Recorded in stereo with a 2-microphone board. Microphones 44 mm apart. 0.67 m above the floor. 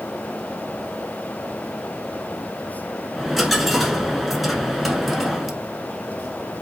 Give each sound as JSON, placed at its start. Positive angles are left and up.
{"t": 3.2, "sound": "a dropped coin", "side_deg": 0, "distance_m": 0.9}